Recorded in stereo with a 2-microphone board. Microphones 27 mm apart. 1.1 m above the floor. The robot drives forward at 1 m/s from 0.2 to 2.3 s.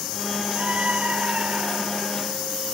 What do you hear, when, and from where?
0.6 s a scream: 60° right (ahead or behind); by 2.1 s 65° right (ahead or behind)